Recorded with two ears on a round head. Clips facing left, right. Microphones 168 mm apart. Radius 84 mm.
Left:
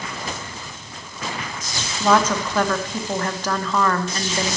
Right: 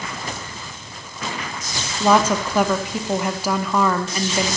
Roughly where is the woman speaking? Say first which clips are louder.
Right 1 dB; centre.